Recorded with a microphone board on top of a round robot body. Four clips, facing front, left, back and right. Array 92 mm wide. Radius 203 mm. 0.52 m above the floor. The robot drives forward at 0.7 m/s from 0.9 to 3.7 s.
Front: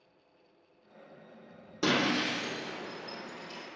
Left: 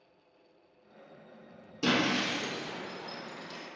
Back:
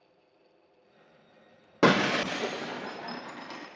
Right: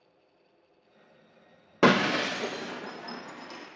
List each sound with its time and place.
1.8 s breaking glass: 130° right, 0.5 m; by 3.7 s 165° right, 1.6 m